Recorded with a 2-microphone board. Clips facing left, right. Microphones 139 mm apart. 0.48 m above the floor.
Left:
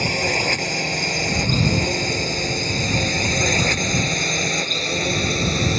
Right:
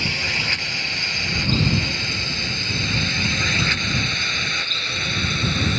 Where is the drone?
40° left (ahead or behind).